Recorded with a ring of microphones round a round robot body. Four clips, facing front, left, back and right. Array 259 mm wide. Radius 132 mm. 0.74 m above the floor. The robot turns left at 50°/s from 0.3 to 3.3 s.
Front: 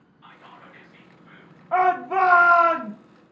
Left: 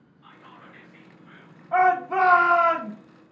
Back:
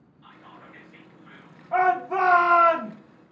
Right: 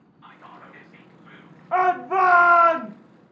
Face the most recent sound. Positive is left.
turn(degrees=-140)